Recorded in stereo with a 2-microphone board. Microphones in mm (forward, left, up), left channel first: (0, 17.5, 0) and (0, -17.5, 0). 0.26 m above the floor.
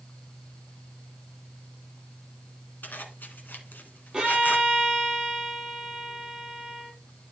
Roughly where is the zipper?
Left.